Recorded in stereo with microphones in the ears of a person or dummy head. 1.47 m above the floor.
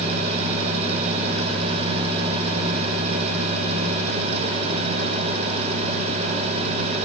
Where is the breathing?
I don't hear breathing.